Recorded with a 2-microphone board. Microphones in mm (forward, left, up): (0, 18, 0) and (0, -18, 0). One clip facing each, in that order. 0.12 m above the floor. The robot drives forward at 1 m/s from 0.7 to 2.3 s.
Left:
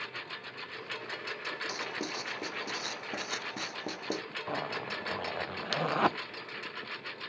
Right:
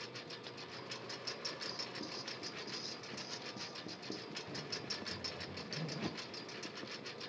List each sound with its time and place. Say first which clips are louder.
0.0 s a lawn mower: left 8 dB; 40° left (ahead or behind); by 7.3 s 35° left (ahead or behind)
1.7 s writing: left 9 dB; 60° left (ahead or behind); by 4.2 s 55° left (ahead or behind)
4.5 s a zipper: left 13 dB; 70° left (ahead or behind)